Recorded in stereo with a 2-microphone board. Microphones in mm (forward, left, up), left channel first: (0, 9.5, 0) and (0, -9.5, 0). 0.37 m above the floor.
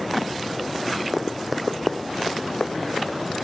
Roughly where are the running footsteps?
Right.